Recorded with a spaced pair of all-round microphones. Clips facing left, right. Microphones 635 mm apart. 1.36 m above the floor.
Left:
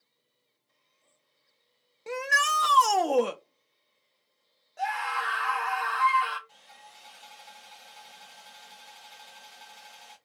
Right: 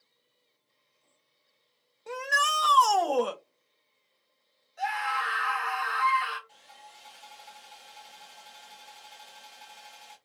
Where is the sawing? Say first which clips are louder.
Right 1 dB; 35° left (ahead or behind), 1.5 m.